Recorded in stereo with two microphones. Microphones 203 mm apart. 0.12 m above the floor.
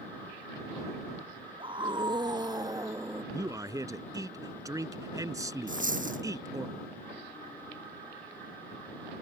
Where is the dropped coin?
40° right (ahead or behind).